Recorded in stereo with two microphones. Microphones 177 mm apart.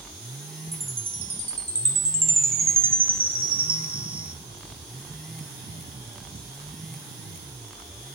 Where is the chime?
55° right (ahead or behind), 0.6 m.